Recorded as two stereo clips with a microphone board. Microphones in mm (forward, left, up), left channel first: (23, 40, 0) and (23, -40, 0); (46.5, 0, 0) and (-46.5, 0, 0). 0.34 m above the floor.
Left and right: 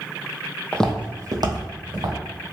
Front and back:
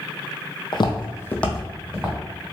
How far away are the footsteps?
About 0.6 m.